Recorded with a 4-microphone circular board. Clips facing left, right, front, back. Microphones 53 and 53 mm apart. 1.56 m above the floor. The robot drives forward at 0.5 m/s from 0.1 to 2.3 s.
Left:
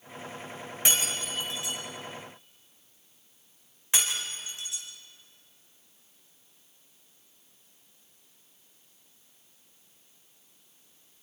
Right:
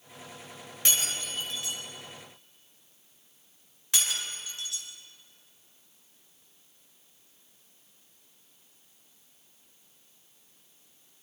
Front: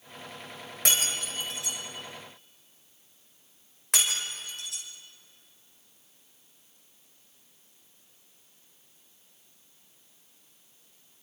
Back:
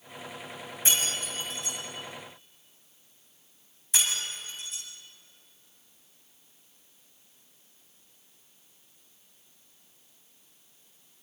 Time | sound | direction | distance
0.8 | breaking glass | 20° left | 5.5 m